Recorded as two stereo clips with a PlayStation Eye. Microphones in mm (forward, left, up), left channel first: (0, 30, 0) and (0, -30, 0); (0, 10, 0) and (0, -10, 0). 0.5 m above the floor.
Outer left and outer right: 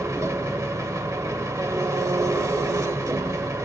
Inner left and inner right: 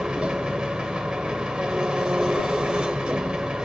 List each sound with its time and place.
0.0 s an engine running: 55° right (ahead or behind), 0.7 m